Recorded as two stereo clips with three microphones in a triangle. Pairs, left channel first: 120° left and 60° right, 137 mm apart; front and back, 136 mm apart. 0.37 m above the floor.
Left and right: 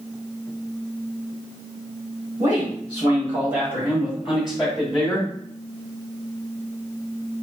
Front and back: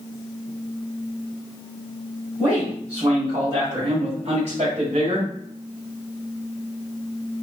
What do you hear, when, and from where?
2.4 s a man speaking: 105° right, 2 m; by 5.3 s 160° right, 1.9 m